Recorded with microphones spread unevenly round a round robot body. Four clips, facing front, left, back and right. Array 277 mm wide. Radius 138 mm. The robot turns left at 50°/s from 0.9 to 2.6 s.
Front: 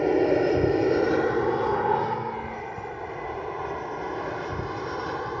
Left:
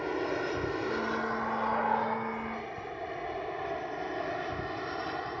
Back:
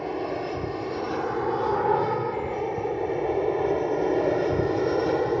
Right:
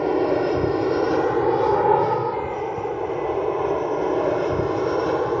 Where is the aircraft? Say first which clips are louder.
Right 12 dB, front 8 dB; 50° right; by 5.4 s 125° right.